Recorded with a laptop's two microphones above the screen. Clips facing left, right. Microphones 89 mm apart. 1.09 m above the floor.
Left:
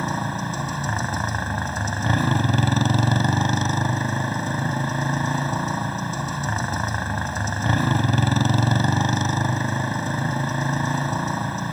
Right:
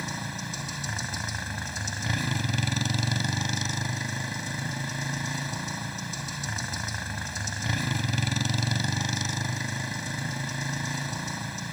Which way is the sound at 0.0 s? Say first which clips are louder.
Left 10 dB; 45° left (ahead or behind).